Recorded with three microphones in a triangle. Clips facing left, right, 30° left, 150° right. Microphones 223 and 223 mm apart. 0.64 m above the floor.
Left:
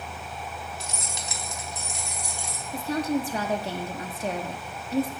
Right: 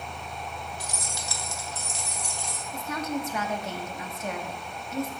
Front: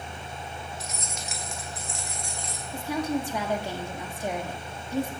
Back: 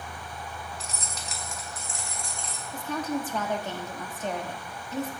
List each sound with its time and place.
0.8 s keys jangling: 150° left, 1.0 m; by 2.6 s 170° left, 2.5 m
2.7 s a woman speaking: 95° left, 1.0 m